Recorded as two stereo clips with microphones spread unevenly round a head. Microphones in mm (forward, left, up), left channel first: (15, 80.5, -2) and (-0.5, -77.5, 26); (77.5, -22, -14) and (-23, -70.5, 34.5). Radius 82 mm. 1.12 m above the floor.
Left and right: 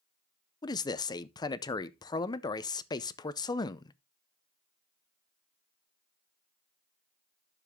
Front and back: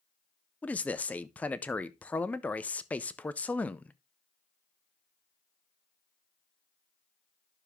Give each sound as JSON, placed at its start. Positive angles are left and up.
{"t": 0.6, "sound": "a man speaking", "azimuth_deg": 55, "distance_m": 0.6}